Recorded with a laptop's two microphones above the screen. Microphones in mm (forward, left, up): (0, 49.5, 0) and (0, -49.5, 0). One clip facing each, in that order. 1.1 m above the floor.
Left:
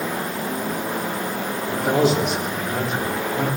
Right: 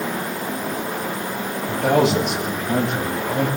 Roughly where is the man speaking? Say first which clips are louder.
Right 2 dB; right.